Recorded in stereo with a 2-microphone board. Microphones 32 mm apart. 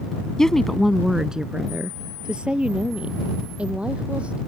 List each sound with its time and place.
0.4 s a woman speaking: 20° left (ahead or behind); by 4.4 s 40° right (ahead or behind)